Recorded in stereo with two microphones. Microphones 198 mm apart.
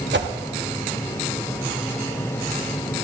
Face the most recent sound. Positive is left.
turn(degrees=-65)  # may be behind; listen again after turning